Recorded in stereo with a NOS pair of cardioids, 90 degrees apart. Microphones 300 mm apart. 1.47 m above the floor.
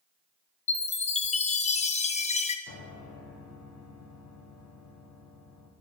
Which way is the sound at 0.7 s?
25° left.